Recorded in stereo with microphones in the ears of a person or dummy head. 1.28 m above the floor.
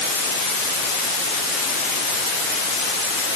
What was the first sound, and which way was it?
Only background noise.